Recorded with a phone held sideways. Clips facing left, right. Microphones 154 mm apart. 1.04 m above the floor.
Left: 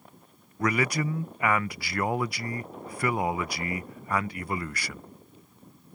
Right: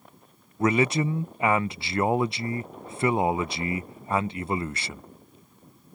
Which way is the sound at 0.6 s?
25° right (ahead or behind).